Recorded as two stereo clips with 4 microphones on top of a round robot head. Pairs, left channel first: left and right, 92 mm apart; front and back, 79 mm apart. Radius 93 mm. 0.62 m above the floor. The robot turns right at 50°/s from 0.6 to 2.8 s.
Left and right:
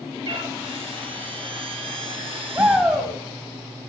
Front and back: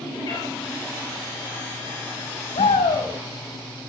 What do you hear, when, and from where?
0.2 s a cat meowing: 50° right, 4 m
2.5 s a shout: 20° right, 3.5 m; by 3.1 s 5° right, 3.5 m